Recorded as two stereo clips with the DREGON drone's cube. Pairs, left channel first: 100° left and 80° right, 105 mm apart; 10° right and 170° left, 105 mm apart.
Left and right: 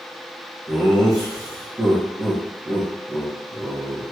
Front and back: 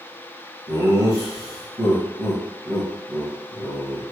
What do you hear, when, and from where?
0.7 s laughter: 175° right, 2 m